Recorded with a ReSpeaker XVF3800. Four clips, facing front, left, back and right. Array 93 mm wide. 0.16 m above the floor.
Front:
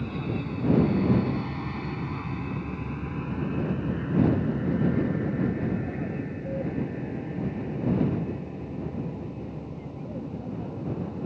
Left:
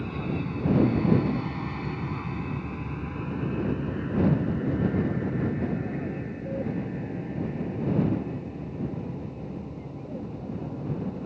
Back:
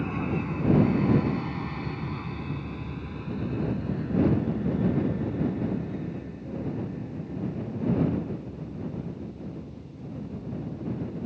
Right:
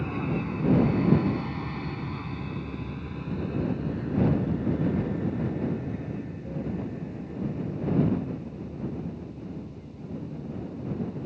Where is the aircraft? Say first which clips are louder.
Right 1 dB, back 2 dB; 150° right; by 11.2 s 40° left.